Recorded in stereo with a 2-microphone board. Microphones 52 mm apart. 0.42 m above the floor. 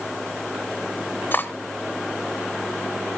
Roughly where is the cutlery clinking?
Left.